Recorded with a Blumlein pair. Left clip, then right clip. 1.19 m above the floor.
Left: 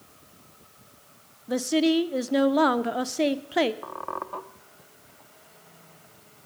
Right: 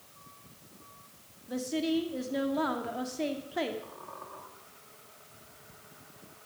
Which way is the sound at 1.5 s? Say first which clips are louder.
Left 8 dB; 30° left.